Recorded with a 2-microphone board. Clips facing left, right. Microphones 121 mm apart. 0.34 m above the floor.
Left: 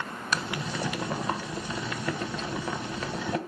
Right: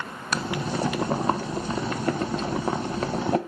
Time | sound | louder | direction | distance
0.3 | boiling | right 5 dB | 40° right (ahead or behind) | 0.5 m